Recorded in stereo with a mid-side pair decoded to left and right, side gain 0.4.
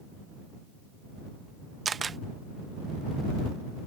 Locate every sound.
1.9 s a camera shutter: 40° right